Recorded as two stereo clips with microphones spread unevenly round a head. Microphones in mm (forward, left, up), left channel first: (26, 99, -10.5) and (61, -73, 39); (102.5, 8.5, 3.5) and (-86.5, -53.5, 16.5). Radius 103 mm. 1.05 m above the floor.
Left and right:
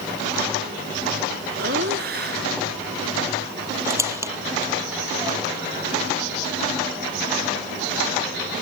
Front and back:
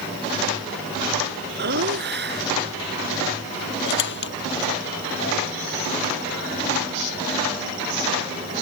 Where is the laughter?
125° right.